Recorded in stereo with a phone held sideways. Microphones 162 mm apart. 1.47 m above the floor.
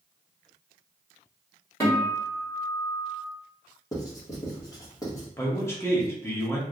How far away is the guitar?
About 1.7 m.